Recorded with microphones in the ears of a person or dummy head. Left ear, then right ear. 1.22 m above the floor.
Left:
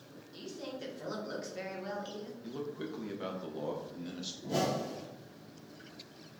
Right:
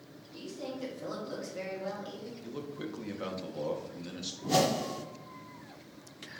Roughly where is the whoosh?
Right.